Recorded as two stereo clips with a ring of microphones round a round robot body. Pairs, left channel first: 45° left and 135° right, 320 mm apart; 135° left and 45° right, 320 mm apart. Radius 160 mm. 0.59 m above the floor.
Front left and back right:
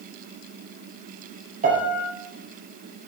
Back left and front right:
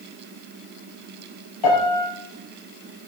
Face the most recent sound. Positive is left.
turn(degrees=160)